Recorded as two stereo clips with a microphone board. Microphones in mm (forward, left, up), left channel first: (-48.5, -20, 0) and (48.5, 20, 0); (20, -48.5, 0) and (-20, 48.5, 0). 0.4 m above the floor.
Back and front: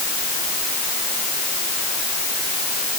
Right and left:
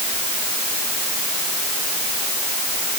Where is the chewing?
No chewing in this recording.